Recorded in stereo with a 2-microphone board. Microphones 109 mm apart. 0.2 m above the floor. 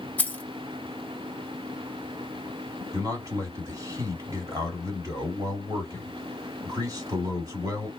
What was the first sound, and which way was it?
Keys jangling, 15° left (ahead or behind).